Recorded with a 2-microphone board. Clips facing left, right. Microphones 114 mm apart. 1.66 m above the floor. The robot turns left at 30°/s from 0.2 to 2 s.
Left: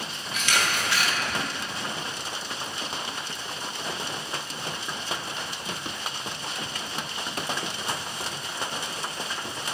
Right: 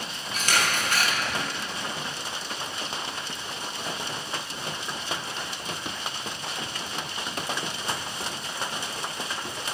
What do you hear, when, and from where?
0.3 s a camera shutter: 40° right (ahead or behind), 1.0 m; by 1.1 s 45° right (ahead or behind), 1.0 m